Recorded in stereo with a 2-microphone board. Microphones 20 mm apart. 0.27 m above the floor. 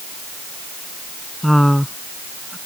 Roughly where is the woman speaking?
Centre.